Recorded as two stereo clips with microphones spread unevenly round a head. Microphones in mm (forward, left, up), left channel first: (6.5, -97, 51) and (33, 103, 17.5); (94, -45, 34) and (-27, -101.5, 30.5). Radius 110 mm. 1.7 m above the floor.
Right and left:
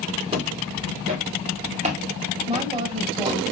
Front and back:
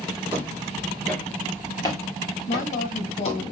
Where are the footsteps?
140° left, 1.9 m; by 3.4 s 15° left, 2.5 m.